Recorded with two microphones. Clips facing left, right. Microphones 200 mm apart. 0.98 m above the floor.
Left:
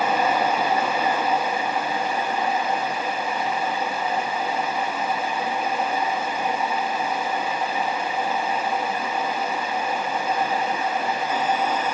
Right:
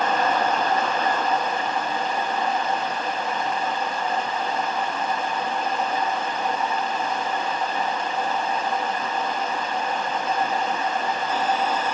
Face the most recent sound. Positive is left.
No sound to turn to.